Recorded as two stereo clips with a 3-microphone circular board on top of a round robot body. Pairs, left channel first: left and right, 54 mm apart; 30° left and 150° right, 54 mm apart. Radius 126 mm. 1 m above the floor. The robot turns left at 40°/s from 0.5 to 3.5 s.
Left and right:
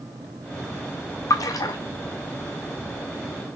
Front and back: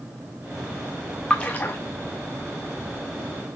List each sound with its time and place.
1.3 s a splash: 105° left, 0.5 m; by 1.8 s 90° left, 0.5 m